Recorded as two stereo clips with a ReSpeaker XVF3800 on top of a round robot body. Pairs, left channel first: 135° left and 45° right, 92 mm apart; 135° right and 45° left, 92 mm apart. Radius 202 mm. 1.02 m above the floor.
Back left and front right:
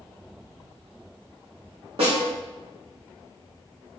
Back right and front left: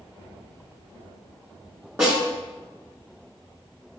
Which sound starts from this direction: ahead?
A snare drum, at 2.0 s.